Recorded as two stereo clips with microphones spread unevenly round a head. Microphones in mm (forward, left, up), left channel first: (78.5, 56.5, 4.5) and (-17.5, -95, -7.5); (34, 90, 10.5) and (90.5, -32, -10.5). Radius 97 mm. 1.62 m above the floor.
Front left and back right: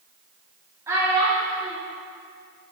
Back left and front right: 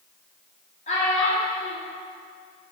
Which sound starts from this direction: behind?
A child speaking, at 0.9 s.